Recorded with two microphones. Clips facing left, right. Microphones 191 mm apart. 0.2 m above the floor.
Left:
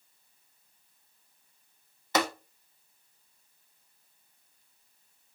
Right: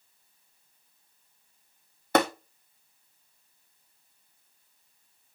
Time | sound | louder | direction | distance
2.1 | tapping | right 5 dB | 55° right (ahead or behind) | 1.6 m